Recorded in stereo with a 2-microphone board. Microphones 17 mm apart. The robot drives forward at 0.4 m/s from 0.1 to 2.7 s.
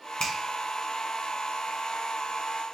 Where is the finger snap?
30° left (ahead or behind), 1.0 m.